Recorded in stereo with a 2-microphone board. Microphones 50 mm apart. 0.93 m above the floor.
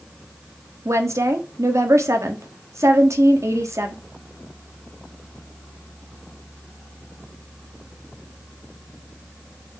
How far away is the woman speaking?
About 1.3 m.